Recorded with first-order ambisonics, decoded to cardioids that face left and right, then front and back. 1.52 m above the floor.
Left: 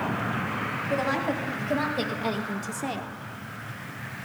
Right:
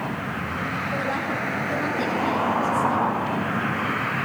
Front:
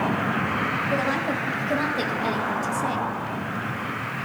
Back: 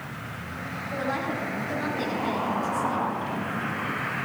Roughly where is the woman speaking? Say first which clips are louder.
Left 2 dB, front 5 dB; ahead left.